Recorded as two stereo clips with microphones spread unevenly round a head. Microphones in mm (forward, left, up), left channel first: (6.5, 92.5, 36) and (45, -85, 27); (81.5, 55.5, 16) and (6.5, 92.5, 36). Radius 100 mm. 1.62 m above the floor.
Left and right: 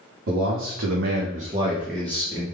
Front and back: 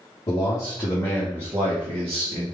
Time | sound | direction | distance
0.3 | a man speaking | 70° right | 0.9 m